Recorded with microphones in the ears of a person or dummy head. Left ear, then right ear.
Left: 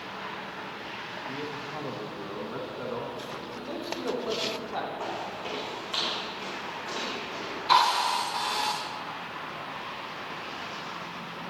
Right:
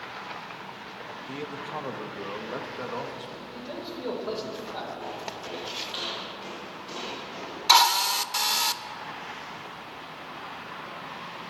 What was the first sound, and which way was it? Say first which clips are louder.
A man speaking: right 3 dB; 30° right (ahead or behind).